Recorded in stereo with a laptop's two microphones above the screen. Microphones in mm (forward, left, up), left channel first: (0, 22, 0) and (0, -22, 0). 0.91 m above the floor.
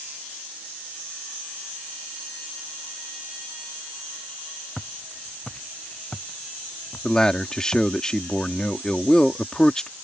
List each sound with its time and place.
4.8 s footsteps: 15° left (ahead or behind); by 7.9 s 40° left (ahead or behind)
7.0 s a man speaking: 15° left (ahead or behind)